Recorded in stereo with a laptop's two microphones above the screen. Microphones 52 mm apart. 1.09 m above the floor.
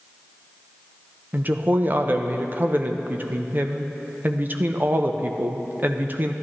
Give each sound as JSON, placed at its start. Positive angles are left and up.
{"t": 1.3, "sound": "a woman speaking", "side_deg": -40, "distance_m": 0.7}